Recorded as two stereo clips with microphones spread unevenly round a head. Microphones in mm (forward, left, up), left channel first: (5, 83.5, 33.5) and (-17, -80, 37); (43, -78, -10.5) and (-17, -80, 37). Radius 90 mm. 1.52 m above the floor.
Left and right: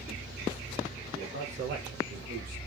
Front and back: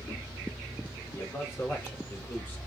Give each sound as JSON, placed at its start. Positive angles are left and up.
{"t": 1.1, "sound": "a man speaking", "azimuth_deg": -50, "distance_m": 4.0}